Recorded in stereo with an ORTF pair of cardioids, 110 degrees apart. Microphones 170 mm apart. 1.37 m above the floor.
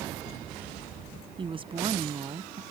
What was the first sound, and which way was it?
A woman speaking, 30° right.